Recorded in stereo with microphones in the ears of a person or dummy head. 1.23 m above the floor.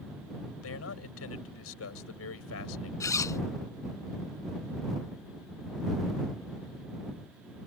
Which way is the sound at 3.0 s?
20° left (ahead or behind).